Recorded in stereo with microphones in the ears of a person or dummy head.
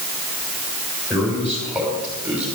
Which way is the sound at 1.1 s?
5° left (ahead or behind).